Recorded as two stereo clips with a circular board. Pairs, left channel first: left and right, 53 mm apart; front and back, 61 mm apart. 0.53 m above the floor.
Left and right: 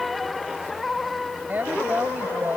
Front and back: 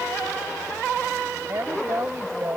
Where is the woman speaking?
140° right.